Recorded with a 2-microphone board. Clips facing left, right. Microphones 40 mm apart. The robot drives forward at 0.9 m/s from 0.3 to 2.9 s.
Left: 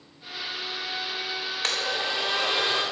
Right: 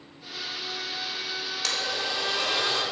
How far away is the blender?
About 1.6 m.